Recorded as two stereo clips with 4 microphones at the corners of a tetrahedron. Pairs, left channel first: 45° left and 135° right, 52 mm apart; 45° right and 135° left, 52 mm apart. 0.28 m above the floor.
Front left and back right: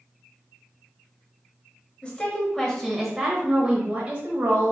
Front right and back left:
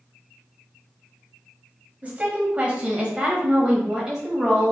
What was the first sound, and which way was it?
A woman speaking, 95° left.